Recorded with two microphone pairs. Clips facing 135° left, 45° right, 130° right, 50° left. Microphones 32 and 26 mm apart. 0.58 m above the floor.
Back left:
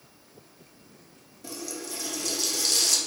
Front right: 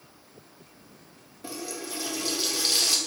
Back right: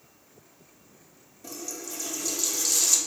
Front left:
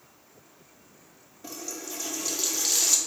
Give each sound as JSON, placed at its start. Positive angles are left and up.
{"t": 1.4, "sound": "a running tap", "azimuth_deg": -5, "distance_m": 0.6}